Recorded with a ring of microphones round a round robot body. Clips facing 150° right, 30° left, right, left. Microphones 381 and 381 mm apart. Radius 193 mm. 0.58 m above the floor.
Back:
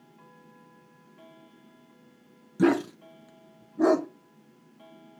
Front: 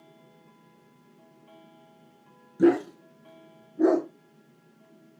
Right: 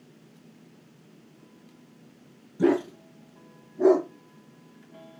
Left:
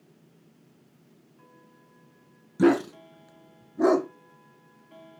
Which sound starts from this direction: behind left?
A dog barking, at 2.6 s.